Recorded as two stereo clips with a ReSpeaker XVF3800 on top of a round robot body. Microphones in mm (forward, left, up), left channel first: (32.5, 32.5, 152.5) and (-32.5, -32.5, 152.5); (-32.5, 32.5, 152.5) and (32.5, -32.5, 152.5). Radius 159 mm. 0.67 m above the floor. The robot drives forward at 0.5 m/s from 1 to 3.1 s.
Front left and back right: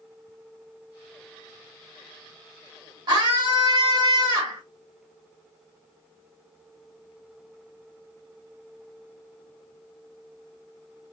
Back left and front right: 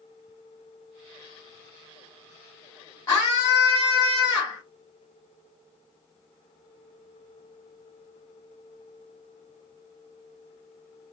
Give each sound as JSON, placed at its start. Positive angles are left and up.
{"t": 3.1, "sound": "a scream", "azimuth_deg": -170, "distance_m": 2.0}